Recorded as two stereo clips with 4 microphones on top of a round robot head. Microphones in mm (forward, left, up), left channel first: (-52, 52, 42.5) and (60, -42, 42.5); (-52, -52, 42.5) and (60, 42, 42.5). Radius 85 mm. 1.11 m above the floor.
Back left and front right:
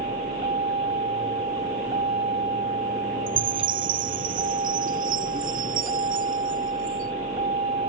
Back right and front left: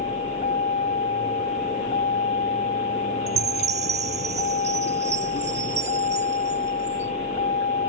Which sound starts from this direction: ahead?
A chime, at 3.3 s.